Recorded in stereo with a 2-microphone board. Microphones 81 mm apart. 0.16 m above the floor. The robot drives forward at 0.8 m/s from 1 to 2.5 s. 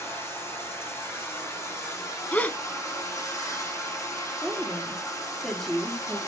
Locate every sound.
0.0 s running water: 35° left (ahead or behind), 5.5 m; by 6.3 s 40° left (ahead or behind), 4.5 m
2.3 s a gasp: 20° left (ahead or behind), 0.5 m
4.4 s a woman speaking: centre (ahead or behind), 3 m